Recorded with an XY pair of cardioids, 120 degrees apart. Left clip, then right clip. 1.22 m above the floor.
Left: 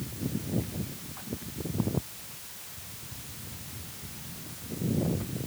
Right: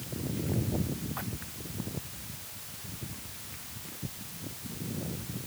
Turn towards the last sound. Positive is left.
No sound to turn to.